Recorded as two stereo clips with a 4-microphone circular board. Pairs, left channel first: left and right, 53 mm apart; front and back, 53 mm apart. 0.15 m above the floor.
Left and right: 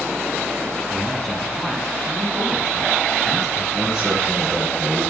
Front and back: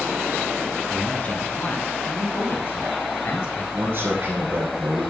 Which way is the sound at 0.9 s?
20° left.